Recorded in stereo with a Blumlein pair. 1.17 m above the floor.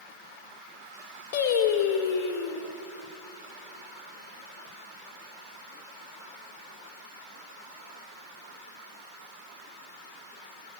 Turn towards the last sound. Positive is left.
turn(degrees=50)